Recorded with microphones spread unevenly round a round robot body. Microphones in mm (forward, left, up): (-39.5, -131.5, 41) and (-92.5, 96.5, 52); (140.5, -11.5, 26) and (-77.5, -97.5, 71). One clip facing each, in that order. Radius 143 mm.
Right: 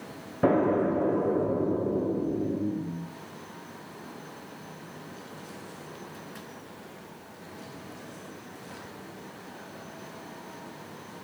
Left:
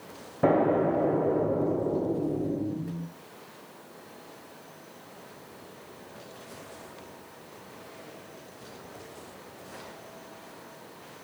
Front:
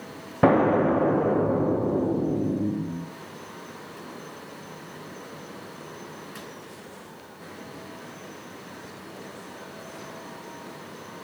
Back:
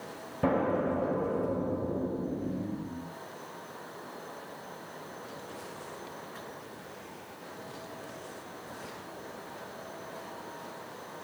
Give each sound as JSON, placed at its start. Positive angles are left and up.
{"t": 0.4, "sound": "an explosion", "azimuth_deg": 5, "distance_m": 0.5}